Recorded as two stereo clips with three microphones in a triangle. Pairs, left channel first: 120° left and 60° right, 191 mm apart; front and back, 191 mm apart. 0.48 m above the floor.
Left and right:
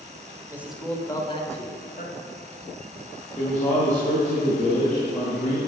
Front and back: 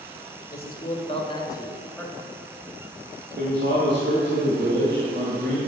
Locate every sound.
0.5 s a man speaking: 15° left, 1.5 m; by 2.4 s 90° left, 2.5 m
3.4 s a man speaking: 165° left, 2.5 m